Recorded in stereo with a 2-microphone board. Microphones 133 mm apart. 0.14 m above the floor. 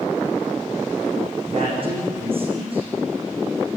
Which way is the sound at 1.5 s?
45° right (ahead or behind).